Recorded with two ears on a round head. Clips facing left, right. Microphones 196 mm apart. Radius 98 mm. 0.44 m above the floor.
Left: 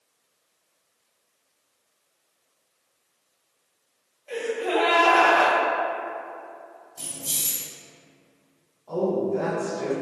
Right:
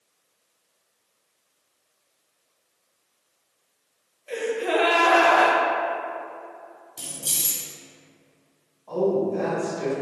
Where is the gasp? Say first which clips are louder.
Right 1 dB; 20° right (ahead or behind), 0.5 m.